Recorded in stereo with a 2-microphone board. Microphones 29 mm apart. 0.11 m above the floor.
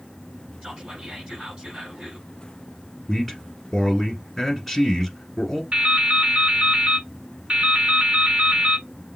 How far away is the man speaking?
About 1.8 m.